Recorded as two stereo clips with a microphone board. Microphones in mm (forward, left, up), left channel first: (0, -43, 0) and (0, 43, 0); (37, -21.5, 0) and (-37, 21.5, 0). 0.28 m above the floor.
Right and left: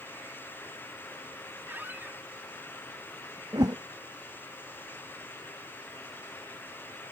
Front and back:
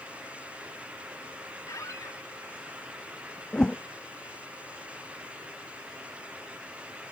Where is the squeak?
20° left.